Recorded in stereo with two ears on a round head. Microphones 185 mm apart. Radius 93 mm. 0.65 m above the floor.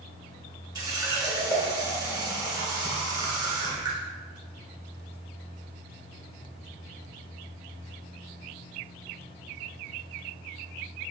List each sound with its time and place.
0.8 s a running tap: 20° right (ahead or behind), 1.3 m